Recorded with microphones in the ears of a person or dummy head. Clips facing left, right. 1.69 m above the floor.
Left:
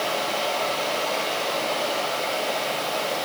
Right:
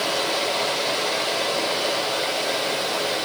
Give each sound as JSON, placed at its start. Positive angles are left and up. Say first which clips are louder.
{"t": 0.0, "sound": "running water", "louder": "right 1 dB", "side_deg": -75, "distance_m": 5.0}